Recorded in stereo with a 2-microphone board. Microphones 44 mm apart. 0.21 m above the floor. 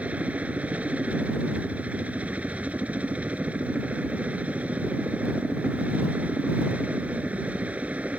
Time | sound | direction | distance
0.0 | a helicopter | 35° right (ahead or behind) | ?